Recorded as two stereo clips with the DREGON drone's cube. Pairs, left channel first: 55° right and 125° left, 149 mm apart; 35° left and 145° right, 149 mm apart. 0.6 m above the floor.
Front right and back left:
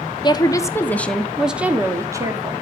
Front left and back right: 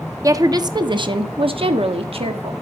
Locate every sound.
0.2 s a woman speaking: 90° right, 1.1 m; by 2.5 s straight behind, 1.3 m